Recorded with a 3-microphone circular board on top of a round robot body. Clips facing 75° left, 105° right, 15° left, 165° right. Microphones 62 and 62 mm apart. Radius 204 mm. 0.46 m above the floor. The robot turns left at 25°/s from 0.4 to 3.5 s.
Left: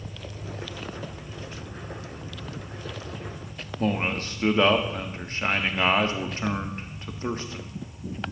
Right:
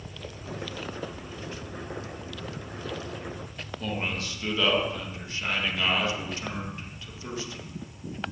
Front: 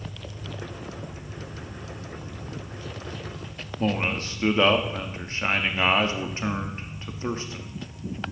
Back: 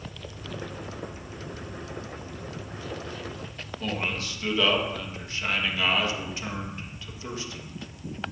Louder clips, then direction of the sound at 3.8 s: Left 6 dB, front 5 dB; 55° left.